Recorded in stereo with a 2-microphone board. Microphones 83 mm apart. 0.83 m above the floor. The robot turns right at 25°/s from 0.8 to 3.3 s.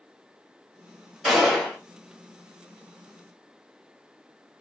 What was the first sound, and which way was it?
A gunshot, centre (ahead or behind).